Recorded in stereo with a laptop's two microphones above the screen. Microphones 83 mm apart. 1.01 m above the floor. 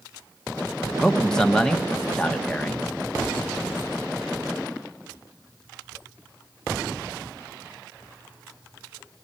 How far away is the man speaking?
About 1.4 m.